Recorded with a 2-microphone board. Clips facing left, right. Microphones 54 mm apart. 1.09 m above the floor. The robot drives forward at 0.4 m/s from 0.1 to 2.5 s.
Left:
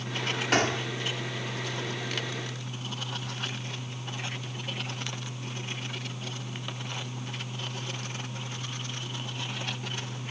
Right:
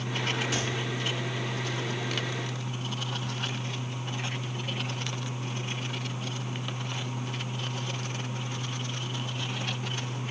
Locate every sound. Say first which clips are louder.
0.5 s a gunshot: left 5 dB; 60° left (ahead or behind)